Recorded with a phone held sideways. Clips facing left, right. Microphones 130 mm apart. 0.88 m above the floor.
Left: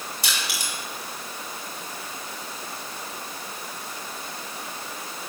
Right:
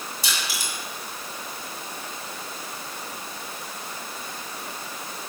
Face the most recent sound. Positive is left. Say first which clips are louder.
# even
turn(degrees=60)  # may be behind; listen again after turning